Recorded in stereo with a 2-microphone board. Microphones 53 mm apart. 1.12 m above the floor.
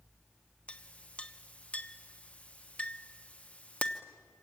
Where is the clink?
25° left (ahead or behind), 1.0 m.